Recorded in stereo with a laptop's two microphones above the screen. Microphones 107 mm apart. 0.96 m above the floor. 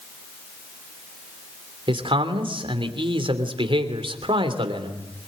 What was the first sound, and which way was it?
A man speaking, 55° right (ahead or behind).